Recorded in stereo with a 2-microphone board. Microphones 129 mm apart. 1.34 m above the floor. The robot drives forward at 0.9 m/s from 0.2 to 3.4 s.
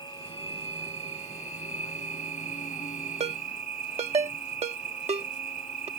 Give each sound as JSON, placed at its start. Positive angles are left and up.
{"t": 0.0, "sound": "an insect", "side_deg": 40}
{"t": 3.2, "sound": "a ringtone", "side_deg": -65}